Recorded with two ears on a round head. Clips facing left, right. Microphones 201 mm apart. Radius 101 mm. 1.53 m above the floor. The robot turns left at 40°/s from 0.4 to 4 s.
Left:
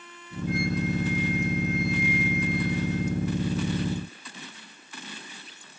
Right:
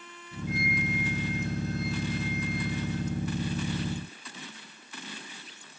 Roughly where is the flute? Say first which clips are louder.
Left 5 dB; left.